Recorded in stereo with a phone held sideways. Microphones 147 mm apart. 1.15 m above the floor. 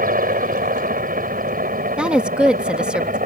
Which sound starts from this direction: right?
A helicopter, at 0.0 s.